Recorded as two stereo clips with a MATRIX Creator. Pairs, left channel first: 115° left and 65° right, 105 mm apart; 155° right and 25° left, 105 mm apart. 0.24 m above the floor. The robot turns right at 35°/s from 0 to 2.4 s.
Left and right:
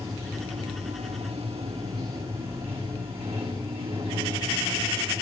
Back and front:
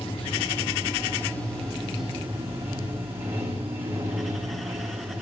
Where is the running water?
135° right, 7.5 m; by 5.2 s 50° right, 7.5 m.